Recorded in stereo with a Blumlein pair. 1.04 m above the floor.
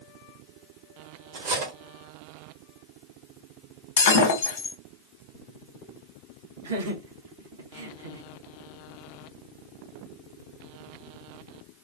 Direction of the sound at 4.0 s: 60° left.